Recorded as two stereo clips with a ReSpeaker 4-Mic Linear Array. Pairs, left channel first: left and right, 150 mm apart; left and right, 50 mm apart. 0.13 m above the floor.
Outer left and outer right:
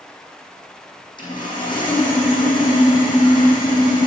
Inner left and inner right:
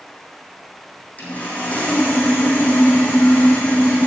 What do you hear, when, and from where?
1.2 s sawing: 30° left (ahead or behind), 3 m